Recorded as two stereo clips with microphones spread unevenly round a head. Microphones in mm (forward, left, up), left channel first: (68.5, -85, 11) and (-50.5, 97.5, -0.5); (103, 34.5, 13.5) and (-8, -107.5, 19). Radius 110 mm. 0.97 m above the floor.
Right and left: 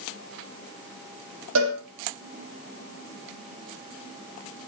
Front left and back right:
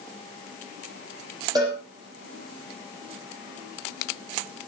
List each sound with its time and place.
1.6 s a cowbell: 160° left, 6.5 m